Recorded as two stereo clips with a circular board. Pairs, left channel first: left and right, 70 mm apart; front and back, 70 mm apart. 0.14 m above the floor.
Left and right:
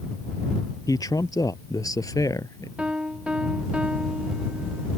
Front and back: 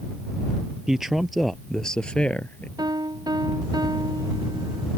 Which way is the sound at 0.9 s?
100° left.